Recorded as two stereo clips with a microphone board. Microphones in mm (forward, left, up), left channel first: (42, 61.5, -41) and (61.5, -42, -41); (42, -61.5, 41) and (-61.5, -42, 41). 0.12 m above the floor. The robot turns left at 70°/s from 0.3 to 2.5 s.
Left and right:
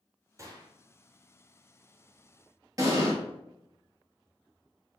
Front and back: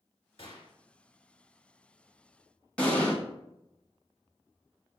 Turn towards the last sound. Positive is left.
turn(degrees=-80)